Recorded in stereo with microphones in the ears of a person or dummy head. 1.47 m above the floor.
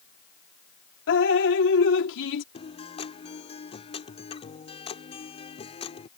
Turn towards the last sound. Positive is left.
turn(degrees=30)  # may be behind; listen again after turning